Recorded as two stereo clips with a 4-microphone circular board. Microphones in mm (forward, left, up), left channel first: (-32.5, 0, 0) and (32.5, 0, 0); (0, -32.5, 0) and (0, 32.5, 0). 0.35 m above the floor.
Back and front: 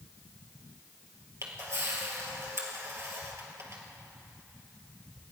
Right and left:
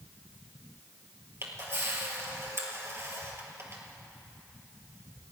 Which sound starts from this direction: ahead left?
A camera shutter, at 1.4 s.